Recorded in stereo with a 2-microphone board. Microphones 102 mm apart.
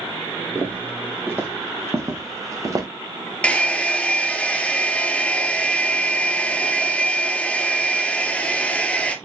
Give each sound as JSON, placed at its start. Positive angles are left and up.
{"t": 0.6, "sound": "footsteps", "side_deg": -20, "distance_m": 4.0}
{"t": 3.4, "sound": "a hair dryer", "side_deg": 10, "distance_m": 1.6}